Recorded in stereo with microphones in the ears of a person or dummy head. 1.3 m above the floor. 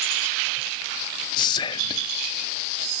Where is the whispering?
25° left (ahead or behind), 0.6 m.